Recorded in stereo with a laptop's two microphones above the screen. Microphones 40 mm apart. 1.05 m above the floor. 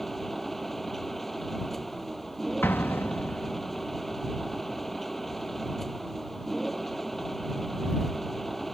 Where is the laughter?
I don't hear laughter.